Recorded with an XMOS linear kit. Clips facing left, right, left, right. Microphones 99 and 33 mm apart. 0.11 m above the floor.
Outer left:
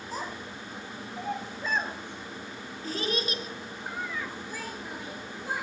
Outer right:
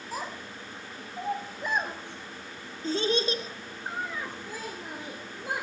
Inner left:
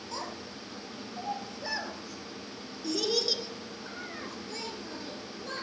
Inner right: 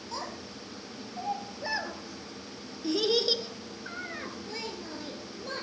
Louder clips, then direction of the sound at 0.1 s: Even, inner right 1 dB; 5° right (ahead or behind).